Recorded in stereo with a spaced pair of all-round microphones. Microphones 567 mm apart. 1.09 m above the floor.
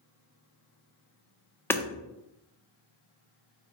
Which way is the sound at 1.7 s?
5° left (ahead or behind).